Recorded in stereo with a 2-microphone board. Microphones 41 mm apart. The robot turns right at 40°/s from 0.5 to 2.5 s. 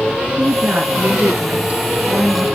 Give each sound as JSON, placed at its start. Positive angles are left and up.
{"t": 0.4, "sound": "a woman speaking", "azimuth_deg": -100, "distance_m": 1.9}